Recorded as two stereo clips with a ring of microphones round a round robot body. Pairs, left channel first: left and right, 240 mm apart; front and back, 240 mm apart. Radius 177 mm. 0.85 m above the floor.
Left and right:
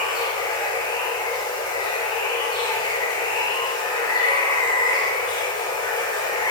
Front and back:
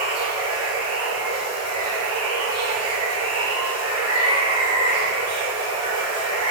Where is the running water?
165° left, 1.3 m.